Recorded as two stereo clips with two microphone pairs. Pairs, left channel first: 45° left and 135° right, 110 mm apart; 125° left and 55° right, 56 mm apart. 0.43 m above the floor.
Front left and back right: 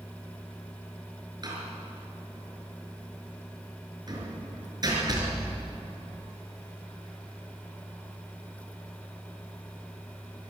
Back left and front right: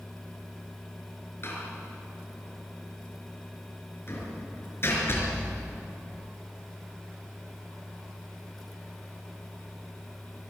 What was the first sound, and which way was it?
A door slam, 175° left.